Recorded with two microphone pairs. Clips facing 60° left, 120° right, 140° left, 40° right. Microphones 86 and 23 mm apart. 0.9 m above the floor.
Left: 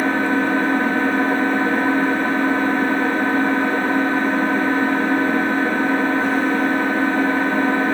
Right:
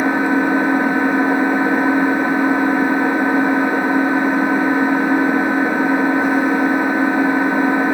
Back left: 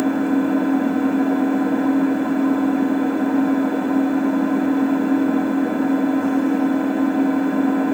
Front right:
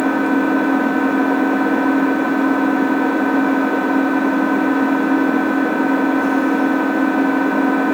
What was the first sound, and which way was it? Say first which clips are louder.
An engine running: right 3 dB, front right 3 dB; 40° right.